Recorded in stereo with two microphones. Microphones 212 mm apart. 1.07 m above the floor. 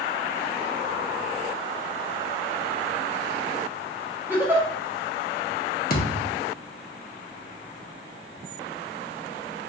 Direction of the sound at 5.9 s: 45° left (ahead or behind).